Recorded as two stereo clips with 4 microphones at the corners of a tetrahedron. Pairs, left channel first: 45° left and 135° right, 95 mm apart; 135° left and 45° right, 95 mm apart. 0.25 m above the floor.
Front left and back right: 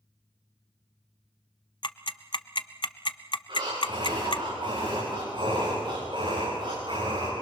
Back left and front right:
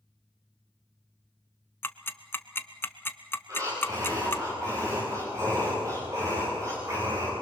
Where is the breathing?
100° right, 6.5 m.